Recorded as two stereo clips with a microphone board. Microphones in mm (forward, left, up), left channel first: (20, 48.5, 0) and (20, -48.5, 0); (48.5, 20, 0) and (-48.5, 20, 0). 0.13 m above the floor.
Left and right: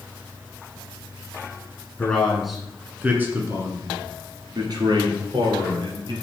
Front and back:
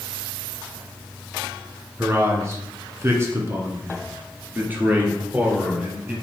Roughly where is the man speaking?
Behind left.